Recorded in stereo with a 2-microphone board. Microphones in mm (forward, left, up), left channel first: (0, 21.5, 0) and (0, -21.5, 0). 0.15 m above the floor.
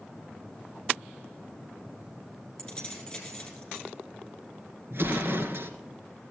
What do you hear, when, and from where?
2.6 s keys jangling: 15° left (ahead or behind), 3 m
4.9 s an explosion: 60° right (ahead or behind), 1.5 m